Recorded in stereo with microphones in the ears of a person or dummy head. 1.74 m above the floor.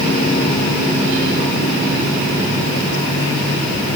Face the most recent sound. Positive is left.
No sound to turn to.